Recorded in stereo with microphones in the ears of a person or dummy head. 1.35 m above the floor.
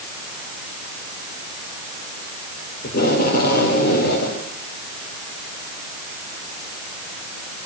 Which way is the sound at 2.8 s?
55° left (ahead or behind).